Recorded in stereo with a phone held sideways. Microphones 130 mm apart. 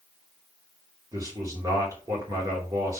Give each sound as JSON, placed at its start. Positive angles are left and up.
{"t": 1.1, "sound": "a man speaking", "side_deg": -25, "distance_m": 3.0}